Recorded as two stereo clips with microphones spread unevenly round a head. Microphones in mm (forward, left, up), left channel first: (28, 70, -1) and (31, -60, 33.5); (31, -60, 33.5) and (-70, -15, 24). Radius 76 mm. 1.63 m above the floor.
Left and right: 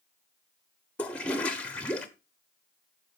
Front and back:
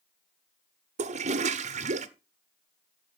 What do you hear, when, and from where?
1.0 s a toilet flushing: 175° left, 0.8 m